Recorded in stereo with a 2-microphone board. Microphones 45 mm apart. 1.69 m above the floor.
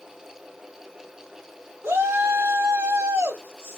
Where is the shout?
75° right (ahead or behind), 2.5 m.